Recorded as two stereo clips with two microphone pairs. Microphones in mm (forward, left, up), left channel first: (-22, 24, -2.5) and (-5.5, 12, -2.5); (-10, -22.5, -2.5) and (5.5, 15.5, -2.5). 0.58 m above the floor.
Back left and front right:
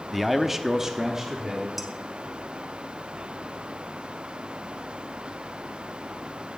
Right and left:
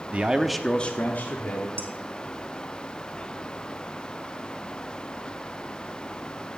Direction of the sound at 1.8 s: 55° left.